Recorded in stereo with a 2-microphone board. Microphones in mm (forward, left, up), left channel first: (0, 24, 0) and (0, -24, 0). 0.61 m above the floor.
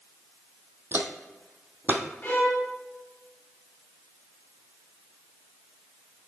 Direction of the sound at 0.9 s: 45° right (ahead or behind).